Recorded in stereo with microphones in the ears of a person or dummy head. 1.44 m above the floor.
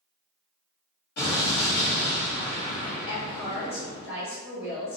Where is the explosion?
65° left (ahead or behind), 1.6 m.